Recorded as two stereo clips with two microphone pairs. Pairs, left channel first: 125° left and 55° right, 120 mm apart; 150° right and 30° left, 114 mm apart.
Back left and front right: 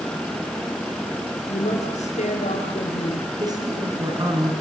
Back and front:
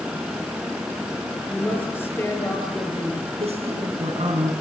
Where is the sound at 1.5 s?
140° left, 8 m.